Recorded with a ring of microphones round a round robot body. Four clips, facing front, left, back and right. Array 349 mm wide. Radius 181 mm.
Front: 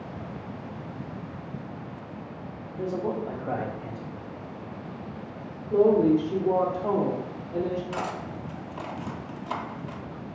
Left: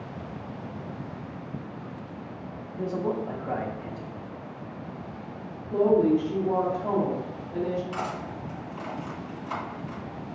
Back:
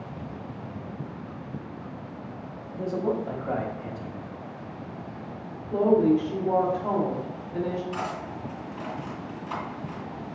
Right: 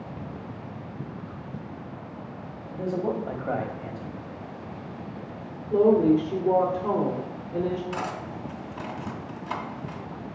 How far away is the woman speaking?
About 1.2 m.